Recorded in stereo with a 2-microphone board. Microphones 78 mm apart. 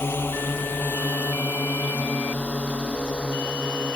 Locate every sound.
0.0 s a drone: 25° left (ahead or behind); by 4.0 s 10° left (ahead or behind)